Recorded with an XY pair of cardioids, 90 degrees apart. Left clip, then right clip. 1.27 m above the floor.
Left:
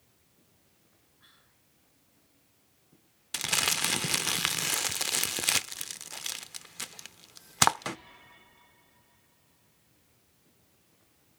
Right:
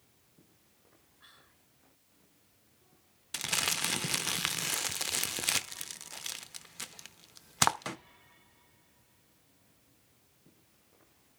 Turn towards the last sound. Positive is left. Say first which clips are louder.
# left 4 dB
turn(degrees=25)